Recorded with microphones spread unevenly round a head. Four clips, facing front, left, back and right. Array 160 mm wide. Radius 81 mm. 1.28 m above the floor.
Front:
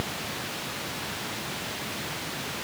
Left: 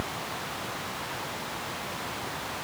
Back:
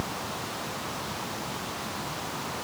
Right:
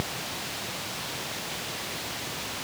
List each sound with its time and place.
Only background noise.